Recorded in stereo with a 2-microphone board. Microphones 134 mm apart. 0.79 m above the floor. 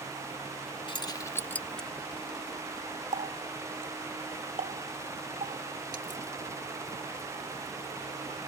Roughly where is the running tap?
Right.